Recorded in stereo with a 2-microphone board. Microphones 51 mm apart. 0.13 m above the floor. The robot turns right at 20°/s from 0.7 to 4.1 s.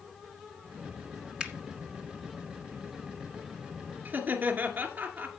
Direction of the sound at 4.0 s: 35° right (ahead or behind).